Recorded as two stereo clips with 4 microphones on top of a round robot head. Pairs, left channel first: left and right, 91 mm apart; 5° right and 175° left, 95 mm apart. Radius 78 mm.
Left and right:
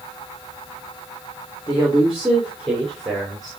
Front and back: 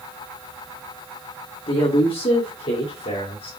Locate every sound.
1.7 s a woman speaking: 10° right, 2.0 m; by 3.5 s 5° left, 4 m